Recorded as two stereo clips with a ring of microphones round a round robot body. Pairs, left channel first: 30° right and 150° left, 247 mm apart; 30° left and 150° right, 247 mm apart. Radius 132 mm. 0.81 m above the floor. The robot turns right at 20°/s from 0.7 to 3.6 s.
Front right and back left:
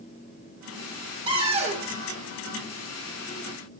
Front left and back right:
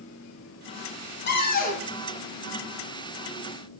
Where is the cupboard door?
80° left, 3 m; by 1.8 s 90° left, 3 m.